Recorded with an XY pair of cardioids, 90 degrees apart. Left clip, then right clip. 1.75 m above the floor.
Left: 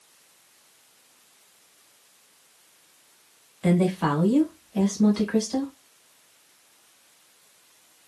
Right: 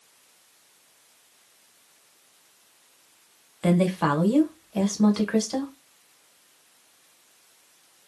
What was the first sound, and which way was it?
A woman speaking, 50° right.